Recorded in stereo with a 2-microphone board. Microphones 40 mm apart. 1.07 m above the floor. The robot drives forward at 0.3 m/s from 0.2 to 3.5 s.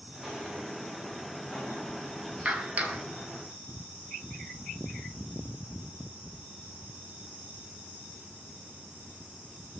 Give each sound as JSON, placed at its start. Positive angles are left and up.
{"t": 0.1, "sound": "footsteps", "side_deg": -20, "distance_m": 4.5}
{"t": 2.5, "sound": "a clap", "side_deg": -35, "distance_m": 1.7}